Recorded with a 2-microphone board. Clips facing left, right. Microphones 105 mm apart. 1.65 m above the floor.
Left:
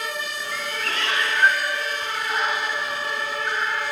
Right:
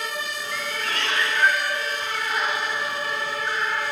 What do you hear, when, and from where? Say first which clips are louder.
0.5 s a cat meowing: even; centre (ahead or behind), 1.6 m; by 3.8 s 15° left (ahead or behind), 2.5 m